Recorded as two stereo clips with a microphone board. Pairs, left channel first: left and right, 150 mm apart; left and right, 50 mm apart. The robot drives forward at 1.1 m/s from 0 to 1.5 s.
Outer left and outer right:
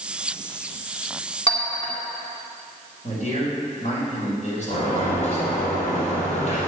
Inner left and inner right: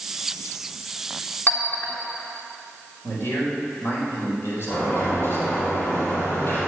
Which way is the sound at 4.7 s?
50° left (ahead or behind).